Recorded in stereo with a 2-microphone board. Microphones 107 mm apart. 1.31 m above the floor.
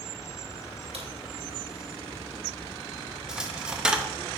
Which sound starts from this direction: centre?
A dropped coin, at 3.3 s.